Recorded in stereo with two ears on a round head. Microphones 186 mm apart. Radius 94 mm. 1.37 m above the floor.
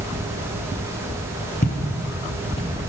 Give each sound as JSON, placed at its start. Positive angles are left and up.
{"t": 1.6, "sound": "footsteps", "side_deg": 40, "distance_m": 1.8}